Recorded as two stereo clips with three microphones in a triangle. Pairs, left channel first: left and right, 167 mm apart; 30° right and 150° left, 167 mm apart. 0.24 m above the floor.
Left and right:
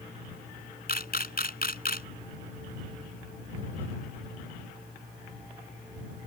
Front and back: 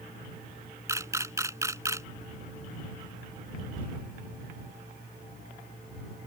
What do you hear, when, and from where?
0.9 s a camera shutter: 80° left